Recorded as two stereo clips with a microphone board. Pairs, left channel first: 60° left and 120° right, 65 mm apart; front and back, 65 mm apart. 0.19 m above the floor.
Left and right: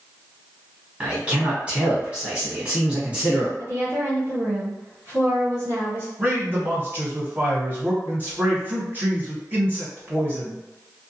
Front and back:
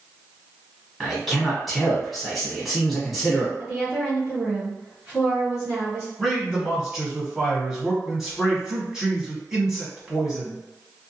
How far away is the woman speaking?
About 1.3 m.